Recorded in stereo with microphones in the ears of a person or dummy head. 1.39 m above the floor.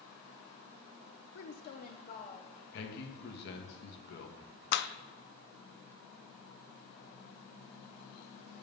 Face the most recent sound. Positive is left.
turn(degrees=60)  # may be behind; listen again after turning